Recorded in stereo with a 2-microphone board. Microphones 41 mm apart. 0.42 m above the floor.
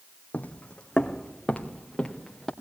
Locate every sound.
0.3 s footsteps: 40° left (ahead or behind), 1.1 m; by 2.5 s 5° left (ahead or behind), 3.5 m